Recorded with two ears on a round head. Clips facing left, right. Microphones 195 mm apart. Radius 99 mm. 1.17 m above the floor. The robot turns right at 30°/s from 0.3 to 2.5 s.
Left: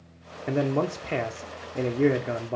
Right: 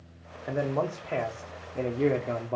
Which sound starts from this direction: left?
A man speaking, at 0.5 s.